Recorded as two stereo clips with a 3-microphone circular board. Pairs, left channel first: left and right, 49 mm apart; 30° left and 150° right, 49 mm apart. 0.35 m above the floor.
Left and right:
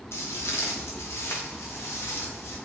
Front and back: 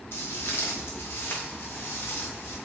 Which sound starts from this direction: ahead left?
Footsteps, at 0.1 s.